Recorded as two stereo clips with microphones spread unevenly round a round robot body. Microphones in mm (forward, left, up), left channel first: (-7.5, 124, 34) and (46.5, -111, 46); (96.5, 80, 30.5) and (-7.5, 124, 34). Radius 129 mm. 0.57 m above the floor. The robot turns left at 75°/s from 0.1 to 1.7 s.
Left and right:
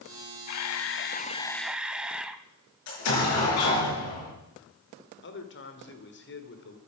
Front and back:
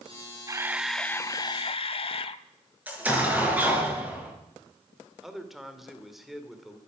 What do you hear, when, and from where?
0.5 s a camera shutter: 100° left, 0.6 m; by 2.4 s 5° left, 0.6 m
2.9 s an explosion: 80° left, 4.5 m
5.2 s a man speaking: 70° left, 2 m